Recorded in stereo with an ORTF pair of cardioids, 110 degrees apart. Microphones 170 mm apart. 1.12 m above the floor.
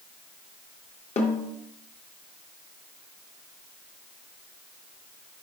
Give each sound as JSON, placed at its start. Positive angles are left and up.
{"t": 1.2, "sound": "a snare drum", "azimuth_deg": 40, "distance_m": 1.7}